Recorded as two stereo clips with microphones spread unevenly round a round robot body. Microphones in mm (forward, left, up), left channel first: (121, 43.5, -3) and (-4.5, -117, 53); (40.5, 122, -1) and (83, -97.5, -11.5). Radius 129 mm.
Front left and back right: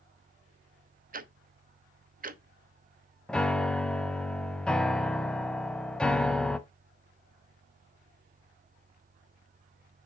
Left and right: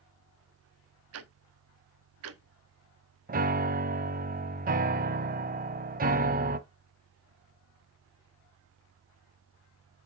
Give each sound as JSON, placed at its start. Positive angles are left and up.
{"t": 1.1, "sound": "ticking", "azimuth_deg": -75, "distance_m": 1.0}
{"t": 3.3, "sound": "a piano", "azimuth_deg": -50, "distance_m": 0.8}